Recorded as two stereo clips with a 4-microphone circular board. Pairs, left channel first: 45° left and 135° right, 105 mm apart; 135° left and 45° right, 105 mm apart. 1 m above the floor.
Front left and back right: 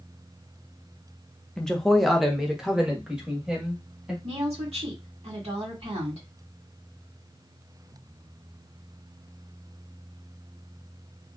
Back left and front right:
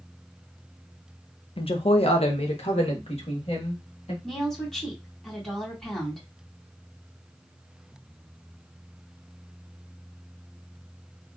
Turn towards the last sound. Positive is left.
turn(degrees=-140)